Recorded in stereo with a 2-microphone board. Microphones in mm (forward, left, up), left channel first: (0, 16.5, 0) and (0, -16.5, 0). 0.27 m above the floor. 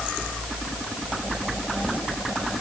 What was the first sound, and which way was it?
Only background noise.